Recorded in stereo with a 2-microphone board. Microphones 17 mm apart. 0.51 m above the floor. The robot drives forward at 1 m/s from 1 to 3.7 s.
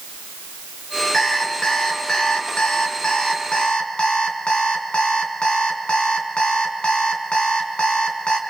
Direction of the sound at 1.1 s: 35° left (ahead or behind).